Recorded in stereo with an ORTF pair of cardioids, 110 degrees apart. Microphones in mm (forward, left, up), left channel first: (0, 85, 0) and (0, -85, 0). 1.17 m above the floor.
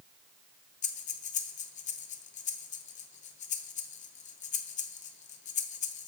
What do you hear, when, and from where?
0.8 s breathing: 45° left, 0.6 m